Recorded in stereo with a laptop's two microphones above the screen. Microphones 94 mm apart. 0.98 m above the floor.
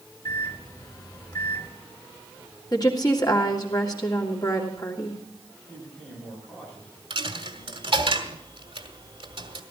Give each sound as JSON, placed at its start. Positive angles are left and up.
{"t": 0.2, "sound": "a microwave", "side_deg": 45, "distance_m": 3.5}
{"t": 2.7, "sound": "a woman speaking", "side_deg": 45, "distance_m": 2.5}
{"t": 5.7, "sound": "a man speaking", "side_deg": 15, "distance_m": 8.5}
{"t": 7.1, "sound": "a dropped coin", "side_deg": -65, "distance_m": 1.8}